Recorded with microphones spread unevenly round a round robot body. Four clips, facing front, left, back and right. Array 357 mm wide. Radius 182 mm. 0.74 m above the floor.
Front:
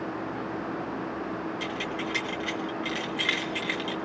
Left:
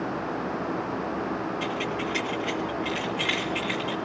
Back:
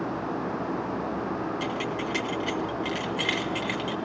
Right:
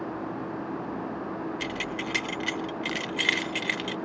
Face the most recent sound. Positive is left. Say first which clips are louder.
# left 4 dB, back 3 dB
turn(degrees=-85)